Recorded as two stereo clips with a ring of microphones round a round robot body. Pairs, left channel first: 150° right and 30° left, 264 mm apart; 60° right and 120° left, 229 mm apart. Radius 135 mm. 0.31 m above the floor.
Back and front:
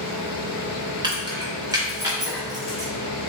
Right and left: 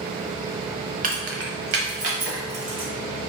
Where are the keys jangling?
95° left, 0.7 m; by 2.9 s 110° left, 2 m.